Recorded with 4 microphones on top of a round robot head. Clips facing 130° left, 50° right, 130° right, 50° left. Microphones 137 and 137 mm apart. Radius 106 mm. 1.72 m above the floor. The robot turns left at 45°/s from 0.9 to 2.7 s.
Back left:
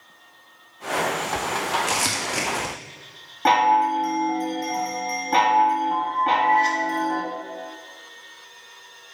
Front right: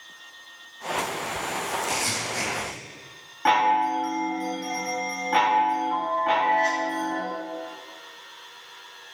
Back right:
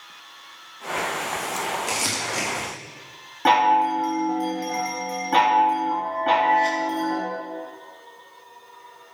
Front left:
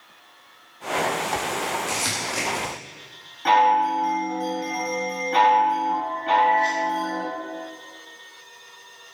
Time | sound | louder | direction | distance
1.9 | crumpling | back left 3 dB, back right 1 dB | 160° left | 2 m
3.5 | a chime | back left 3 dB, even | 170° right | 3 m